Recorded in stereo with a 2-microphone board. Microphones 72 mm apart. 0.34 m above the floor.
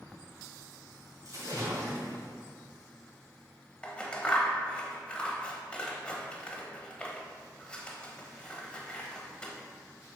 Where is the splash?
55° right (ahead or behind), 2.5 m.